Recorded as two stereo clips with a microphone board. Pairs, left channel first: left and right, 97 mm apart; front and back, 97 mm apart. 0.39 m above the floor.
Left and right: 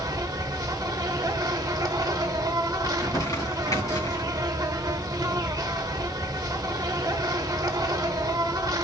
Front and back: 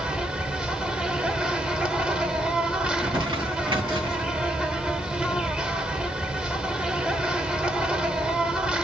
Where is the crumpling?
145° left, 2.5 m.